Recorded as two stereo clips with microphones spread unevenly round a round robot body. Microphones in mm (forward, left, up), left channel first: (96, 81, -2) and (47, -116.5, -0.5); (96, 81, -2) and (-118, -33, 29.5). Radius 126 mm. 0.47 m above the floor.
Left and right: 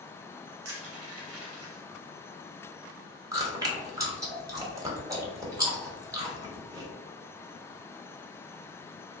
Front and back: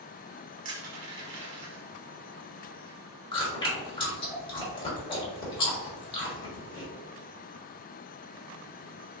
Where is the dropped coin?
No dropped coin in this recording.